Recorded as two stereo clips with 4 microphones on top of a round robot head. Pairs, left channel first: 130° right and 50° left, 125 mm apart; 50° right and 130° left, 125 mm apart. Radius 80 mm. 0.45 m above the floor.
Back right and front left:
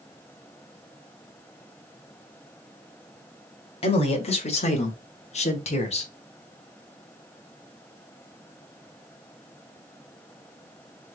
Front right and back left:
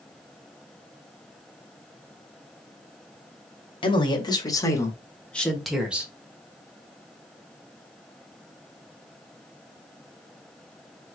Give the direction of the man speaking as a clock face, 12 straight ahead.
3 o'clock.